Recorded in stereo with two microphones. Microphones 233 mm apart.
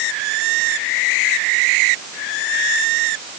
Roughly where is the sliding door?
I don't hear a sliding door.